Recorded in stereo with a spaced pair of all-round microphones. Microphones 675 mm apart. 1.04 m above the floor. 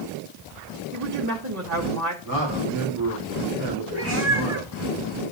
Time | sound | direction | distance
0.9 | a woman speaking | 25° right (ahead or behind) | 1.3 m
2.2 | a man speaking | 30° right (ahead or behind) | 4 m
3.9 | a cat meowing | 20° right (ahead or behind) | 4.5 m